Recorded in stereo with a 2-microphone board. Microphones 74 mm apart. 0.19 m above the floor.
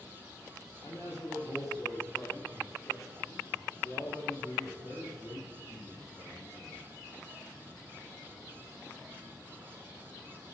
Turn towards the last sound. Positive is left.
turn(degrees=45)  # may be behind; listen again after turning